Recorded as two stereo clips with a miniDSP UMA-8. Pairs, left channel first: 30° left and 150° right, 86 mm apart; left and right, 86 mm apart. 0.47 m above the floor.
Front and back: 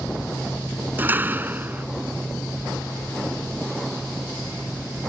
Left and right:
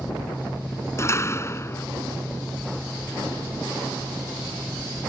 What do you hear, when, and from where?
1.0 s a door slam: 145° left